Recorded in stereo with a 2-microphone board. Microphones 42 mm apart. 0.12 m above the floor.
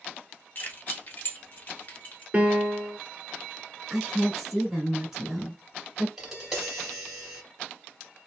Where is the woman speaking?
5° right (ahead or behind), 1.2 m.